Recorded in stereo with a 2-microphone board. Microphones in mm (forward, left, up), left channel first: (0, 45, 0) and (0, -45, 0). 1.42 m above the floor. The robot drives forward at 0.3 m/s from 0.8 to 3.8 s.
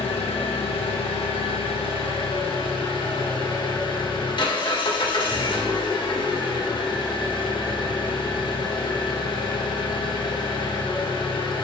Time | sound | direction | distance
0.0 | an engine running | 85° left | 1.4 m